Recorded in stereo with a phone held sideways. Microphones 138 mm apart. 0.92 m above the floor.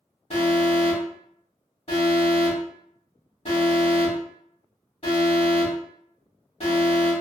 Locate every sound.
0.3 s an alarm: 55° left (ahead or behind), 1.7 m